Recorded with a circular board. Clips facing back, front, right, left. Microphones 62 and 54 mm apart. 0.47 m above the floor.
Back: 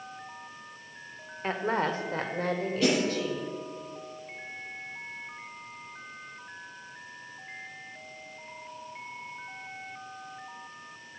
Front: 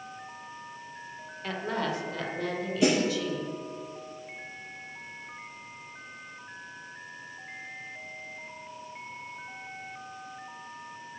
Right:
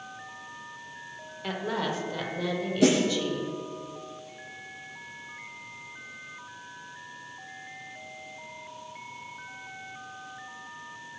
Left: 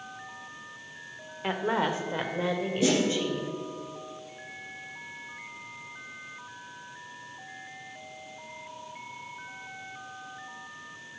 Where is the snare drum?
75° right, 5.5 m.